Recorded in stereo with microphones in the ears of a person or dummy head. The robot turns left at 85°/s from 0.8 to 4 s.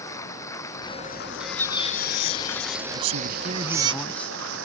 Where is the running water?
160° left; by 4.7 s 110° right.